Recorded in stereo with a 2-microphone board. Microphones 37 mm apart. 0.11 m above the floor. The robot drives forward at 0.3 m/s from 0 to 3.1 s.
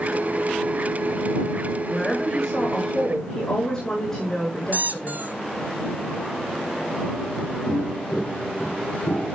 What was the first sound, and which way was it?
A woman speaking, 20° left (ahead or behind).